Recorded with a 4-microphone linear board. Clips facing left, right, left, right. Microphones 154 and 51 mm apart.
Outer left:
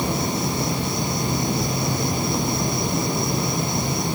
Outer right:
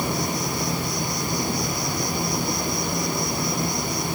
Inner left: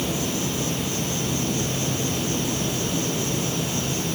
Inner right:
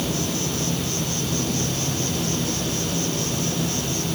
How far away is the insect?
About 3.5 m.